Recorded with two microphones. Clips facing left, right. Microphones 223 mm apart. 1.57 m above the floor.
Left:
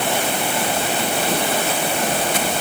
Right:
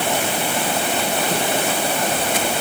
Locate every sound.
Only background noise.